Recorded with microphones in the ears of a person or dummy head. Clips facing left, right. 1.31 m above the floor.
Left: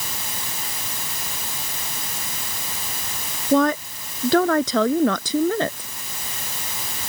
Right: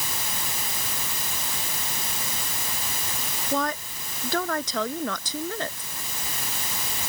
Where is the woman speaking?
65° left (ahead or behind).